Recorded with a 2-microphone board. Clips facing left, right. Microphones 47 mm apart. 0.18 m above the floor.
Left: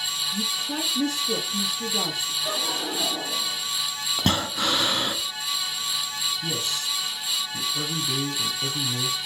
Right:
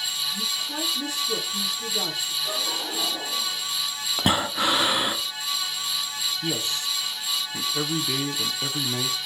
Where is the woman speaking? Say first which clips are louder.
Left 1 dB; 50° left (ahead or behind), 4.5 m.